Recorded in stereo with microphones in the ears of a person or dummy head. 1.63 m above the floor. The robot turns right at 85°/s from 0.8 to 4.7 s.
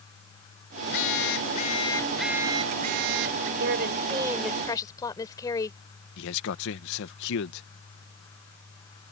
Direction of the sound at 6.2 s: 70° left (ahead or behind).